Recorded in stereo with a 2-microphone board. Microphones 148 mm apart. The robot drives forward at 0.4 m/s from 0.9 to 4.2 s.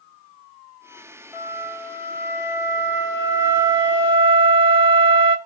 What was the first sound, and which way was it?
A flute, 15° right (ahead or behind).